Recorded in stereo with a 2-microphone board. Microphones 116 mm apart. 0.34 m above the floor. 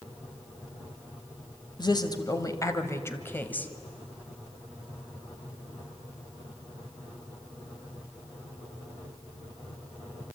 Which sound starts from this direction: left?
A woman speaking, at 1.8 s.